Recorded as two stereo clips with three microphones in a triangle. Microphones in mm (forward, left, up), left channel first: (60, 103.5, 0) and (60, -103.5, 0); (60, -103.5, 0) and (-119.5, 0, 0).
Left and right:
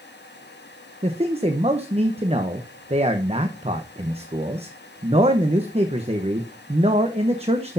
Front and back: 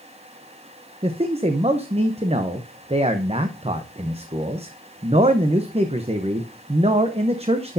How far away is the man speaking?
About 0.9 m.